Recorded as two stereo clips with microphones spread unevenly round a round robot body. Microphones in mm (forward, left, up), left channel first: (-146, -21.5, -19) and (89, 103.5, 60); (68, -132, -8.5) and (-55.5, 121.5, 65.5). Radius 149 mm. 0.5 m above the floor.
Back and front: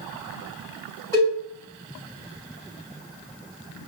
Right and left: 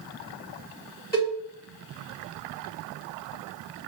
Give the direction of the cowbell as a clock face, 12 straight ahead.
3 o'clock.